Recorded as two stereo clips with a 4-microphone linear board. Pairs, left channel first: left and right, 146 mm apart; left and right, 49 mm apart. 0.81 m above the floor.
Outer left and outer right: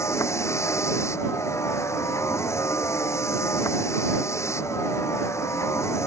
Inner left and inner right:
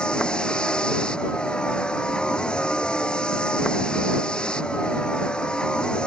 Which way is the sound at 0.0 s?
20° left (ahead or behind).